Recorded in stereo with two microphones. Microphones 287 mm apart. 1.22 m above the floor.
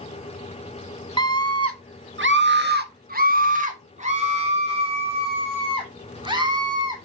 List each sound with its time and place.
1.2 s a scream: 65° right (ahead or behind), 1.1 m; by 7.0 s 15° right (ahead or behind), 4 m